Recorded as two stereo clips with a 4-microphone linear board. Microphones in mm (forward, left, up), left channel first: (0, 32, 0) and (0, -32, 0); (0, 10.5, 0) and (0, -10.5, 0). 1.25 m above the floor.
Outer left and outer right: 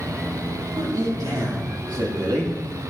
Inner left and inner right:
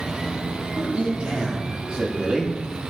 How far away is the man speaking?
About 3.5 m.